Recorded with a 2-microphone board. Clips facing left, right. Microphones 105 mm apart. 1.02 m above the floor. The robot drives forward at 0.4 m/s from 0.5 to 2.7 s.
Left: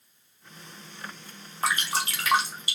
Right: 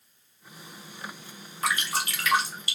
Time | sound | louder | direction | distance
1.6 | dripping | left 1 dB | 30° left (ahead or behind) | 1.0 m